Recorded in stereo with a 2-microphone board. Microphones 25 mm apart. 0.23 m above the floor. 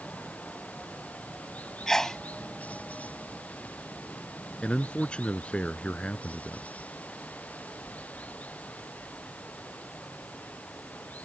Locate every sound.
0.0 s running water: 70° left (ahead or behind)
1.9 s a sneeze: 20° left (ahead or behind)
4.6 s a man speaking: 40° left (ahead or behind)